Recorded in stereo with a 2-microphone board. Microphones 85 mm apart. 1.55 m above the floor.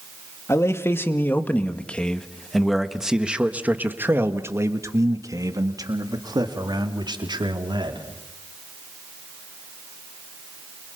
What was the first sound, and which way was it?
A man speaking, 35° left (ahead or behind).